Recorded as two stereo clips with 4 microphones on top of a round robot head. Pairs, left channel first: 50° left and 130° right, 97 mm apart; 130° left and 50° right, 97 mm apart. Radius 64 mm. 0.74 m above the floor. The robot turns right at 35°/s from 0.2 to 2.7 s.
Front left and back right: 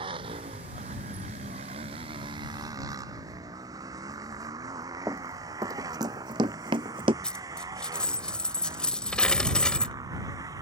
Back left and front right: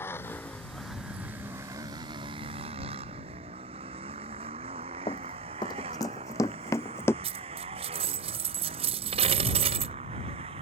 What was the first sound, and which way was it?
A motorcycle, 165° right.